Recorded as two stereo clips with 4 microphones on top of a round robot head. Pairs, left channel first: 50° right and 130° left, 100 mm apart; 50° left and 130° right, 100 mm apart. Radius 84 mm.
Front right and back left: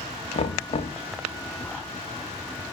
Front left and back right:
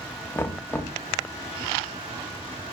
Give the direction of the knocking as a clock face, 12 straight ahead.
1 o'clock.